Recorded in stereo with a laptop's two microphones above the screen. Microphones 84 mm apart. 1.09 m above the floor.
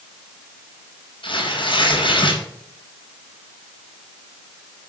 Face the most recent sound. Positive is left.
turn(degrees=75)  # may be behind; listen again after turning